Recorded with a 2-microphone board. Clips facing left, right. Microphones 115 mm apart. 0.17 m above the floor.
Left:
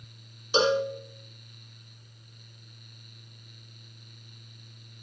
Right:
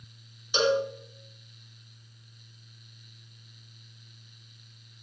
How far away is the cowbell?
About 3 m.